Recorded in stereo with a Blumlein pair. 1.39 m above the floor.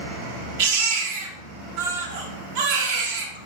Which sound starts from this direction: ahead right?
A baby crying, at 0.6 s.